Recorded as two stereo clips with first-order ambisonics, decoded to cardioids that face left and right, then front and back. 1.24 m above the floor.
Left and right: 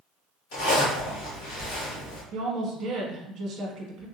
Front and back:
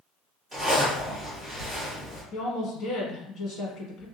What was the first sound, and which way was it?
A zipper, 90° left.